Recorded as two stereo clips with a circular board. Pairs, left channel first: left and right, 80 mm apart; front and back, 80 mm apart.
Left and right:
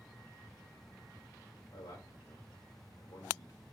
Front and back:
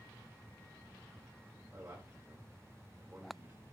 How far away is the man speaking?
About 3 m.